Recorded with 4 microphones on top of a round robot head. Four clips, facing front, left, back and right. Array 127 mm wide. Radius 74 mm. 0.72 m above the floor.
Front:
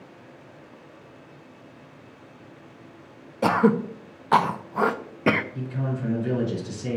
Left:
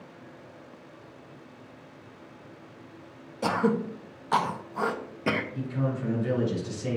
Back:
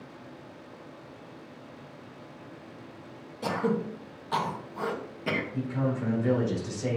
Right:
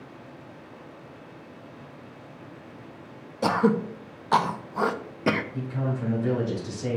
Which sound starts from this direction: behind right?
A man speaking, at 5.5 s.